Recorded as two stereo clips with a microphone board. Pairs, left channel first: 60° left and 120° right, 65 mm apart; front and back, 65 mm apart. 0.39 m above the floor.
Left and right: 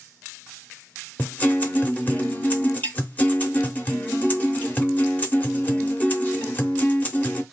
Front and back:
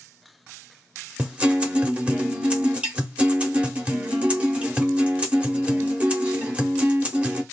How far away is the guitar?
About 0.7 m.